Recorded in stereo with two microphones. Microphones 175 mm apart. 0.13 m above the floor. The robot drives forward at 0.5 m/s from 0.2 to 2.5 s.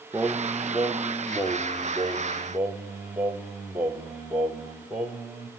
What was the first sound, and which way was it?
Singing, 10° right (ahead or behind).